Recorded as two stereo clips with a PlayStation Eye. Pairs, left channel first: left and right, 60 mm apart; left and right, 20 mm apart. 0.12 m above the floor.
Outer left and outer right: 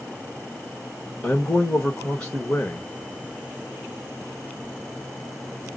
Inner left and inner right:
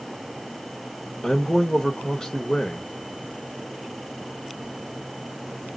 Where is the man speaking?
15° left (ahead or behind), 1.2 m.